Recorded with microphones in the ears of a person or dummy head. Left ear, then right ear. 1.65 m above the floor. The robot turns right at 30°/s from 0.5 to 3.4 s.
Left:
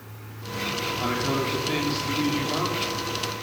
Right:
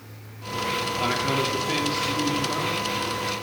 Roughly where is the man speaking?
Ahead right.